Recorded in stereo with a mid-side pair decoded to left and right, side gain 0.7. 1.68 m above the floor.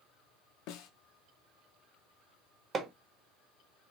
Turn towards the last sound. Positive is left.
turn(degrees=-30)